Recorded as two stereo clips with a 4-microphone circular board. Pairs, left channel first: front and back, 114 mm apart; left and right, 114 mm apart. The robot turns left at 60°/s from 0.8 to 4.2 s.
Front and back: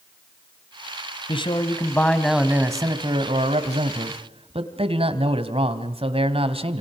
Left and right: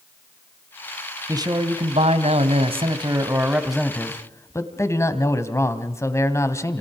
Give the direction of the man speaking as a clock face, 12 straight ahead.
1 o'clock.